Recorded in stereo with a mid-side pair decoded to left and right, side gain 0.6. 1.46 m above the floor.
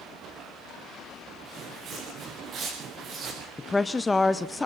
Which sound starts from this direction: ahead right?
Footsteps, at 1.4 s.